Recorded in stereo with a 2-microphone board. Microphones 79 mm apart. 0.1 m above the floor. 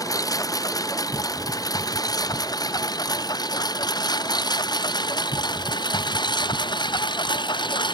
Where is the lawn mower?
50° left (ahead or behind); by 8.0 s 75° left (ahead or behind).